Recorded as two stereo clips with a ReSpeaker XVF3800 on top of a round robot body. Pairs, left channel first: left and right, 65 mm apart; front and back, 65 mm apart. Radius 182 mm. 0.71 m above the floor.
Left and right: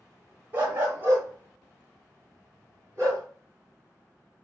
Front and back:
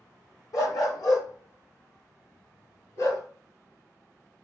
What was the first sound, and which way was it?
A dog barking, 35° right.